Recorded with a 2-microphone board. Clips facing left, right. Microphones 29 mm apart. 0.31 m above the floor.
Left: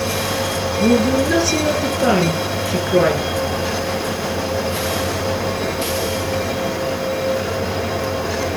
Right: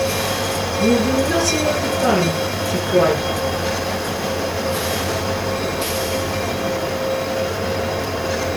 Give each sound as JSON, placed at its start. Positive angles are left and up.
{"t": 0.8, "sound": "a woman speaking", "side_deg": 10, "distance_m": 4.5}